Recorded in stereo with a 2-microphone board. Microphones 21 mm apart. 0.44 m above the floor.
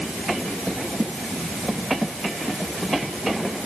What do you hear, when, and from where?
Only background noise.